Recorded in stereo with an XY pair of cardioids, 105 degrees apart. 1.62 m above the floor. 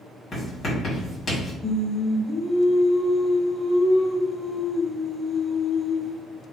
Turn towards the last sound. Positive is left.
turn(degrees=40)